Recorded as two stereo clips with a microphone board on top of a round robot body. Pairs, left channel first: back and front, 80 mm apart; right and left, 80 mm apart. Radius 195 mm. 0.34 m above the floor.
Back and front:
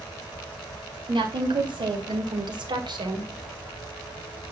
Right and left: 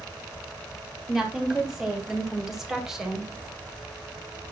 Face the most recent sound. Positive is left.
turn(degrees=5)